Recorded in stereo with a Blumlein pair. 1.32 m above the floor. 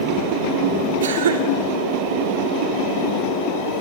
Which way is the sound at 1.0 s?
65° right.